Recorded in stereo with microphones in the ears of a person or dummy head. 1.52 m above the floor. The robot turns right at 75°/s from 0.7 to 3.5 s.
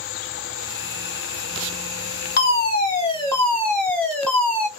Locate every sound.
2.4 s a fire alarm: 90° left, 1.2 m; by 4.7 s 175° left, 1.2 m